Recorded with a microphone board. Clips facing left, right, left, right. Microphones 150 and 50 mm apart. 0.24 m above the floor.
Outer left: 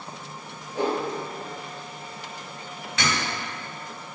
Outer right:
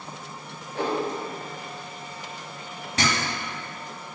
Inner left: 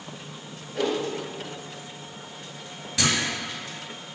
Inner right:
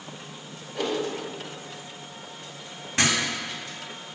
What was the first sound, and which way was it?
A whoosh, 10° left (ahead or behind).